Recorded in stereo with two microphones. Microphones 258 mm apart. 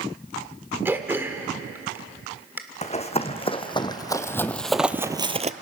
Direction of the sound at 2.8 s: 25° left (ahead or behind).